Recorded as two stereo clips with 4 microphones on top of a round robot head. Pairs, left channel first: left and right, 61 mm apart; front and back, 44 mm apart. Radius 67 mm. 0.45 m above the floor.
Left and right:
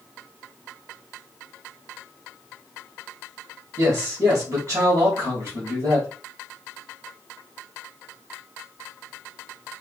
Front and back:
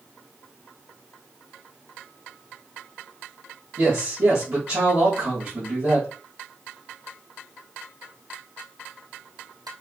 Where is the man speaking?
135° right, 2.5 m.